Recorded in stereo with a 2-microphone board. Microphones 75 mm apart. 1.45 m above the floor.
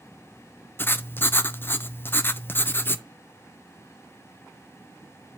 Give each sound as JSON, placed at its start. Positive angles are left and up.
{"t": 0.8, "sound": "writing", "side_deg": 30, "distance_m": 0.5}